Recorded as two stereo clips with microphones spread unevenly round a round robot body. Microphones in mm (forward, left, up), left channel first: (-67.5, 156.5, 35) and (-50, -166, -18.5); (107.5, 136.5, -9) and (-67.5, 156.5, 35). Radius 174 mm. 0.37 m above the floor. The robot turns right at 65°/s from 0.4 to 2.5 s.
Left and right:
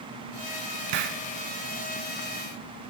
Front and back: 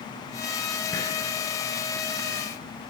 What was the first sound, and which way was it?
A hiss, 95° right.